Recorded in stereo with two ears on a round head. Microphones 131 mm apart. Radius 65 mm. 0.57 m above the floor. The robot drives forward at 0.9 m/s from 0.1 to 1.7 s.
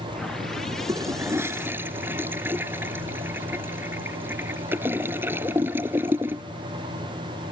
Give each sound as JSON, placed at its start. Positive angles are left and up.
{"t": 0.9, "sound": "a toilet flushing", "side_deg": -25}